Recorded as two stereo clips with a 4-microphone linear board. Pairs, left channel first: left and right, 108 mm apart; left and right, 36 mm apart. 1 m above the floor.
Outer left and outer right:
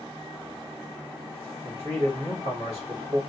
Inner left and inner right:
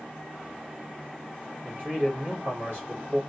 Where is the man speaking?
70° right (ahead or behind), 2.5 m.